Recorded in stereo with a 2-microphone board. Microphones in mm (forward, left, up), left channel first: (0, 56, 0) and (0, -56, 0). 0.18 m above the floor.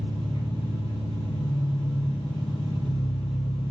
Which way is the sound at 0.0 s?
60° left (ahead or behind).